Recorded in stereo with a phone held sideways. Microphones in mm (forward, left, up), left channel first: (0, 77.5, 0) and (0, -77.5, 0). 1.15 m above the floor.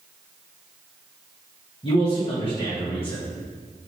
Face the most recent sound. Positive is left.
turn(degrees=35)  # may be behind; listen again after turning